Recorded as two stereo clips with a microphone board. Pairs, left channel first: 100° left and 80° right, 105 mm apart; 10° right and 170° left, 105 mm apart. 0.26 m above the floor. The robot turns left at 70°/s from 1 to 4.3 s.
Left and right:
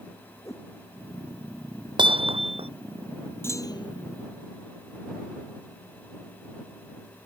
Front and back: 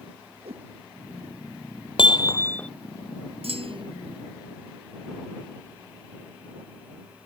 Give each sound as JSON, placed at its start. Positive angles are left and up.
{"t": 0.5, "sound": "a whoosh", "azimuth_deg": 160}
{"t": 2.0, "sound": "hammering", "azimuth_deg": -45}
{"t": 3.4, "sound": "a clunk", "azimuth_deg": 165}